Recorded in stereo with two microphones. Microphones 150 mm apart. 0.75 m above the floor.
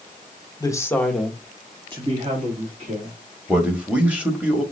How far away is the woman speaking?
About 1.0 m.